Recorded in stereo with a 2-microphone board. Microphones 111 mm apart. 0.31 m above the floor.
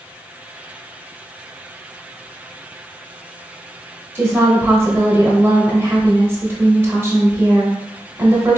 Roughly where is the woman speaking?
Right.